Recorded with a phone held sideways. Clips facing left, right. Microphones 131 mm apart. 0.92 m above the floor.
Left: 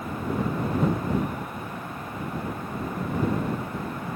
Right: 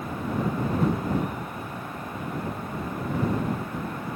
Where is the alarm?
No alarm in this recording.